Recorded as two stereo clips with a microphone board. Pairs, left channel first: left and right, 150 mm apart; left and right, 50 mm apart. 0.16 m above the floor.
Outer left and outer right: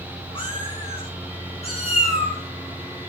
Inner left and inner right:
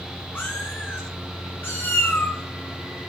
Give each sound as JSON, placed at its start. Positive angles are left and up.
{"t": 0.3, "sound": "a cat meowing", "side_deg": 40, "distance_m": 4.0}